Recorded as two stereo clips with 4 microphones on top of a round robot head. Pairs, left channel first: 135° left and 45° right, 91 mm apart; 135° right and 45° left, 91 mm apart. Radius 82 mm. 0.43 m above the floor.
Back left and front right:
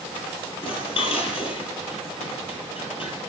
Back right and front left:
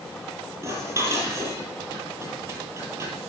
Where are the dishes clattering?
105° left, 7.5 m.